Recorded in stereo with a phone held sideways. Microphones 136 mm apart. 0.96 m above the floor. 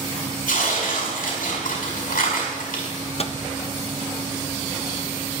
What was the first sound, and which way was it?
Tearing paper, 85° left.